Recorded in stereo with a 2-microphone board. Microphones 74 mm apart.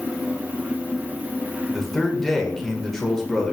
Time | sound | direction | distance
1.7 | a man speaking | 5° left (ahead or behind) | 0.8 m